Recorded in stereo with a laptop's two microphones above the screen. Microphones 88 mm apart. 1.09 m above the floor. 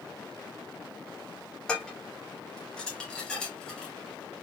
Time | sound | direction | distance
1.7 | dishes clattering | 10° left (ahead or behind) | 1.6 m